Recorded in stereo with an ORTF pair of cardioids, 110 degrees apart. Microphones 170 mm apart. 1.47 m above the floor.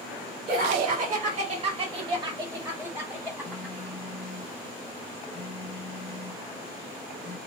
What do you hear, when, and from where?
0.5 s laughter: 70° right, 1.4 m; by 3.9 s 10° left, 2 m
3.4 s a phone buzzing: 10° left, 0.8 m